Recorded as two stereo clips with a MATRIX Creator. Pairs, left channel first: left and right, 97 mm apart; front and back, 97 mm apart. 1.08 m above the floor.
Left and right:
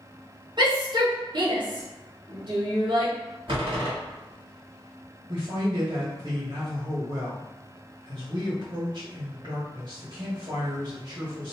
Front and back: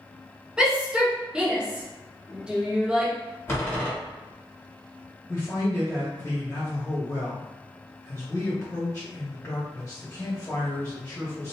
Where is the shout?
100° right, 1.1 m.